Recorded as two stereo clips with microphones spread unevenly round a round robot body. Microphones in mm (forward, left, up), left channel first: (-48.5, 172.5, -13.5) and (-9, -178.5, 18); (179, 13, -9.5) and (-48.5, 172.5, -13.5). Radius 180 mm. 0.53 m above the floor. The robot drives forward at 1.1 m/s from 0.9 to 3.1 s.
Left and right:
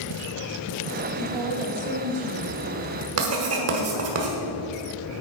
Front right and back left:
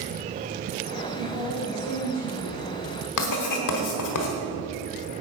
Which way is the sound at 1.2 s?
55° right.